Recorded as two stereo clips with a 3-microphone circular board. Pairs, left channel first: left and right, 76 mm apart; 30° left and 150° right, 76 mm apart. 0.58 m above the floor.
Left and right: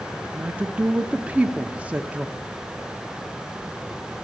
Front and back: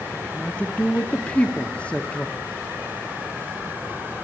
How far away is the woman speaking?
About 0.7 m.